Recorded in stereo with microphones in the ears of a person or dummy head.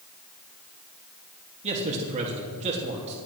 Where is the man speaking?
35° right (ahead or behind), 2.5 m.